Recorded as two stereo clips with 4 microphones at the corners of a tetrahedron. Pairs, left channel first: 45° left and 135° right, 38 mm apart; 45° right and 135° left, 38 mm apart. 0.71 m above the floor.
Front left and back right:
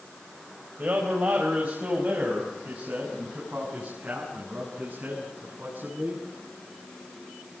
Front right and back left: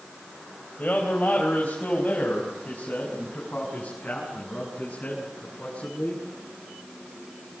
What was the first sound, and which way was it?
A man speaking, 100° right.